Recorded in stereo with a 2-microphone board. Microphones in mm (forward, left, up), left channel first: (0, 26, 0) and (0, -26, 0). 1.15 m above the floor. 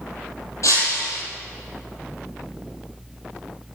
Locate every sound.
0.6 s breaking glass: 80° left, 9.5 m